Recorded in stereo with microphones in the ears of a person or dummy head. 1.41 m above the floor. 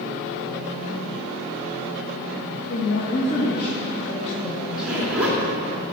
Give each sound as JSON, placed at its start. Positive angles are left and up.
{"t": 2.7, "sound": "a woman speaking", "side_deg": 75, "distance_m": 2.5}
{"t": 4.7, "sound": "a zipper", "side_deg": -10, "distance_m": 2.5}